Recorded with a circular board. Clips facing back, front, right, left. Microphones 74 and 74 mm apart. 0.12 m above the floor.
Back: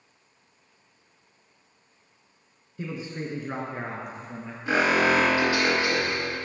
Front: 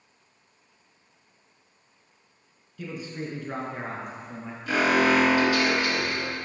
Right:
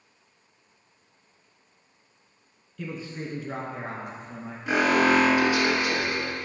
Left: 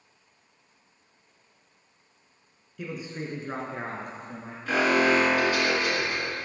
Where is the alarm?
155° right, 2 m.